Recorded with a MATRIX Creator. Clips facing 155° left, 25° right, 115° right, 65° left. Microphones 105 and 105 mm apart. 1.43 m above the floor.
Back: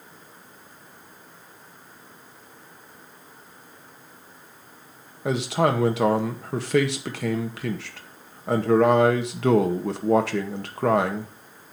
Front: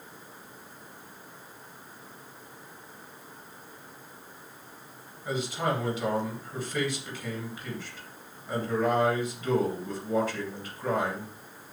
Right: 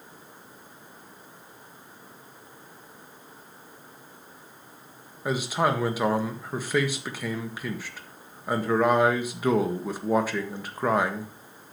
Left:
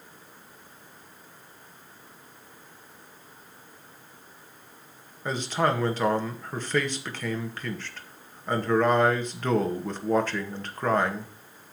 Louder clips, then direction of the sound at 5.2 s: Back 7 dB, right 1 dB; 165° left.